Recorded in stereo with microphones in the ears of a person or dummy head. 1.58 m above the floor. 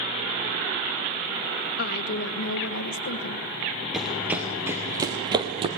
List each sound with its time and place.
1.8 s a woman speaking: 65° left (ahead or behind), 2 m; by 3.5 s 55° left (ahead or behind), 1.3 m
3.9 s running footsteps: centre (ahead or behind), 1.6 m; by 5.7 s 30° right (ahead or behind), 1.9 m